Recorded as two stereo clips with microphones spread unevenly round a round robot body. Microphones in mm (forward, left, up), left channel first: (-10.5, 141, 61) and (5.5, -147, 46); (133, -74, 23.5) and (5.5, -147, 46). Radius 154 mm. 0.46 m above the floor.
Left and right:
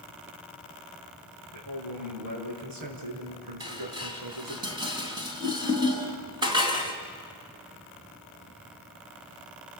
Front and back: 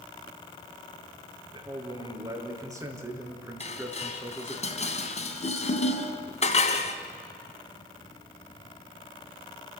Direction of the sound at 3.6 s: 10° right.